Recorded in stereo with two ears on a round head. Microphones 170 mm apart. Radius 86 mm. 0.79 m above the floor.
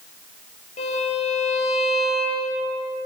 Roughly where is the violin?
Left.